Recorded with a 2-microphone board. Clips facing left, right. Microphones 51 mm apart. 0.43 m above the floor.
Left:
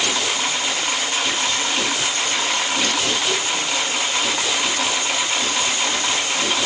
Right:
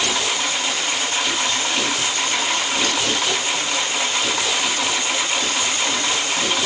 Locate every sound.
Only background noise.